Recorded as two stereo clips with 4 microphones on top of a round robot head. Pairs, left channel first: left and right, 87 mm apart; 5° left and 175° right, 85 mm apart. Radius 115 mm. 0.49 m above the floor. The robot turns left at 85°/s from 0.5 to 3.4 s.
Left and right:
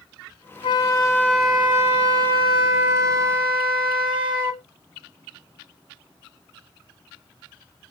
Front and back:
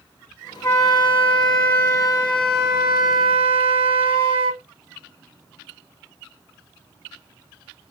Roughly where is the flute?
Left.